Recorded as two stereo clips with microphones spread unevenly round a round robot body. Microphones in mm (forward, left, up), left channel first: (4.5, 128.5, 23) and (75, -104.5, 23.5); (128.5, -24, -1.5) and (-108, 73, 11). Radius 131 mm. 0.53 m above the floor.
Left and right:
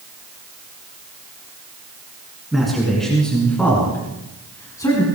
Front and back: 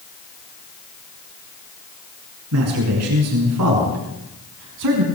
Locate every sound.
2.5 s a man speaking: 165° right, 8.5 m; by 5.0 s 175° right, 6 m